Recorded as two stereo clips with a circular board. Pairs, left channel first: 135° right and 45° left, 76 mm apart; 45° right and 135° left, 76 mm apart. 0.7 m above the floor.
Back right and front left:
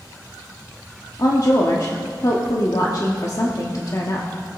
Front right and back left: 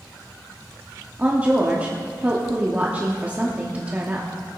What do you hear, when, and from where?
1.2 s a woman speaking: 160° right, 1.1 m